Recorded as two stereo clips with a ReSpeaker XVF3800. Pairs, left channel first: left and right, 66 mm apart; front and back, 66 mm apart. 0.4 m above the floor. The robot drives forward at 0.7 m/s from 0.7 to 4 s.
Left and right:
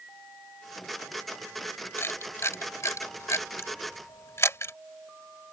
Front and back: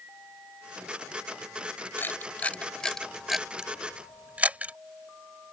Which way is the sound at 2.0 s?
50° left.